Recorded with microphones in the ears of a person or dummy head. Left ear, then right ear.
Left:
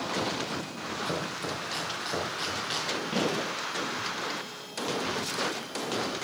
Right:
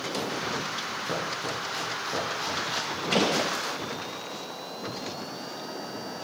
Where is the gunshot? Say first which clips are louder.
Right 7 dB; 45° right (ahead or behind), 3 m.